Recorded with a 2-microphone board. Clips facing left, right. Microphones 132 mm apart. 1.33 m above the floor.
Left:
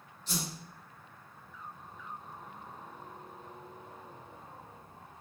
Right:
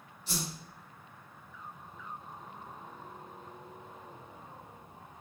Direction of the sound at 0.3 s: 10° right (ahead or behind).